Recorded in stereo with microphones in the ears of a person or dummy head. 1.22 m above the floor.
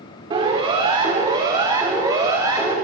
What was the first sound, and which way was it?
A siren, 30° right (ahead or behind).